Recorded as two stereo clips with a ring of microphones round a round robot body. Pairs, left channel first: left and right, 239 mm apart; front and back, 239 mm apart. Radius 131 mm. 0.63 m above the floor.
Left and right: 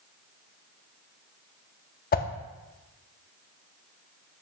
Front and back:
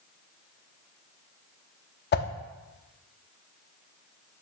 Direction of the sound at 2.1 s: 40° left.